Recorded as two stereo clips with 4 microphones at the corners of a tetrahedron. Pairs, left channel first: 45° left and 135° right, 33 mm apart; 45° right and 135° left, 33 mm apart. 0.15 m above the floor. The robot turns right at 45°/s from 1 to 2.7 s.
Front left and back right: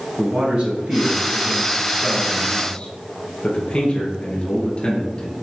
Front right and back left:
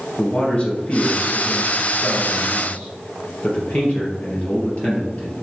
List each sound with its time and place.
0.2 s a man speaking: 80° right, 3 m; by 5.3 s 5° right, 3 m